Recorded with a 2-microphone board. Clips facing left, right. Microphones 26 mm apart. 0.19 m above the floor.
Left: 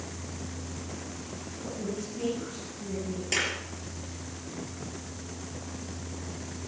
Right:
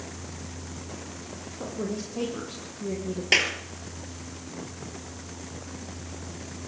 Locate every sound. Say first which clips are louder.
1.6 s a woman speaking: right 3 dB; 80° right, 8.5 m
3.3 s a clap: right 7 dB; 40° right (ahead or behind), 3.5 m